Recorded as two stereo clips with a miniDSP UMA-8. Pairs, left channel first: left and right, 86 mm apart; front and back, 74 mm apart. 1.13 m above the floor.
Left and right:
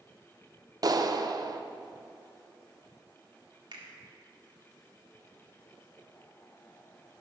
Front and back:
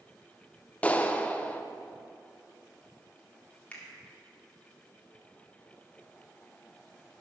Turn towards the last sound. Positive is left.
turn(degrees=-70)